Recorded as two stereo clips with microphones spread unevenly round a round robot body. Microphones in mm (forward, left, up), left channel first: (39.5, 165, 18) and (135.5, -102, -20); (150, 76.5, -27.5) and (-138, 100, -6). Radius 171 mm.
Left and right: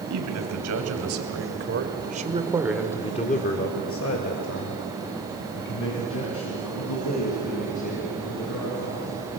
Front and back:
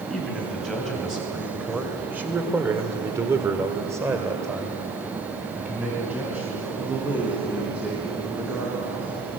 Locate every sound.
0.1 s a man speaking: 90° right, 3 m; by 9.1 s 90° left, 6 m